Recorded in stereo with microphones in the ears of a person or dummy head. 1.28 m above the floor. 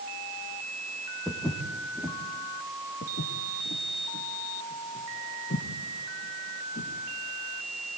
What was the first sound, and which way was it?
Footsteps, 5° left (ahead or behind).